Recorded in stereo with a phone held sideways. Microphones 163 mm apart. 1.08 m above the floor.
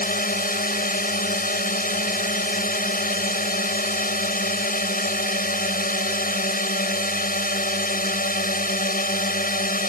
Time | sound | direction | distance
0.0 | a drone | 70° left (ahead or behind) | ?